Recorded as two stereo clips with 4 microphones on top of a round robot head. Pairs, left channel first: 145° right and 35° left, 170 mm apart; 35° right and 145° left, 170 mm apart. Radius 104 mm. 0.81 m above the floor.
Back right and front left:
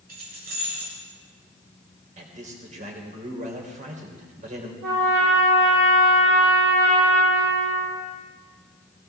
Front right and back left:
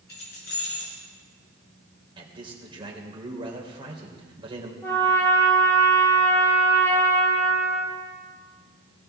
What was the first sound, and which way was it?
Keys jangling, 5° right.